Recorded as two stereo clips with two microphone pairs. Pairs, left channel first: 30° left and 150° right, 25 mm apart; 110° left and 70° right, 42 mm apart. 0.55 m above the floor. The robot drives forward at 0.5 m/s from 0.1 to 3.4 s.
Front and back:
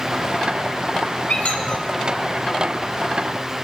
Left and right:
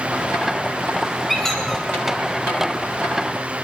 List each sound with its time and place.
1.3 s a squeak: 30° left, 3 m; by 1.9 s 35° left, 3 m